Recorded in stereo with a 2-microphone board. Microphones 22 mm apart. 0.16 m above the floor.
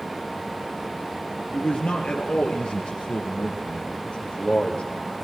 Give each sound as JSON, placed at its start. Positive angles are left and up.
{"t": 1.5, "sound": "a man speaking", "side_deg": 55, "distance_m": 3.0}